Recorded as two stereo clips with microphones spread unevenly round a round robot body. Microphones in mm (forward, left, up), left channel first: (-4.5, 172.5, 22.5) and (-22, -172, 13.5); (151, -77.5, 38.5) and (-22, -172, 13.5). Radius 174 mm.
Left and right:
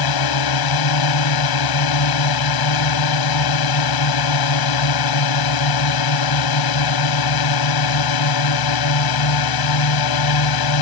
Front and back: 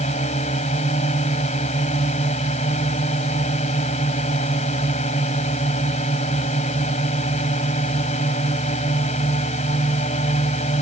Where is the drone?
95° left.